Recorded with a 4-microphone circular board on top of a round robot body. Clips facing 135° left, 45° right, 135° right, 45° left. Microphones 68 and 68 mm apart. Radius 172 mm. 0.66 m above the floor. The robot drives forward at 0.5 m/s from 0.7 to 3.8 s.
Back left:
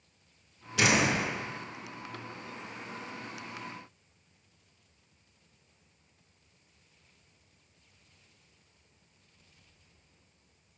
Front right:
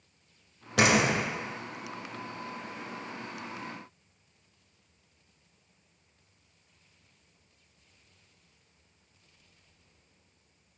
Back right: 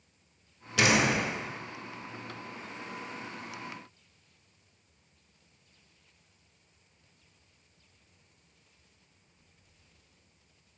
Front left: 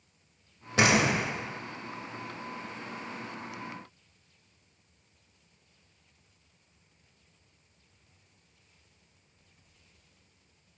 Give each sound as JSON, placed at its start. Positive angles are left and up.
{"t": 0.8, "sound": "a door slam", "azimuth_deg": -10, "distance_m": 3.0}